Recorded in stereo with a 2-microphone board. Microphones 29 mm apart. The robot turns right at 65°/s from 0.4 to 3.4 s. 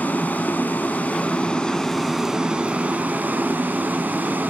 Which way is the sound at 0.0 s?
75° left.